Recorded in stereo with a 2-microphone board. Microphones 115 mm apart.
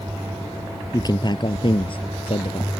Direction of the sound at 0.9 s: 35° left (ahead or behind).